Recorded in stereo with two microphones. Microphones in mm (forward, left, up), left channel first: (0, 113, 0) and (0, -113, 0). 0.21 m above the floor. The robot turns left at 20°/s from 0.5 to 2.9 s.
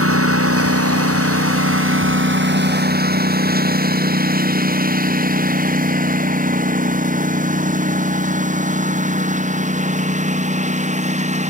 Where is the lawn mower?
80° right; by 11.5 s 30° right (ahead or behind).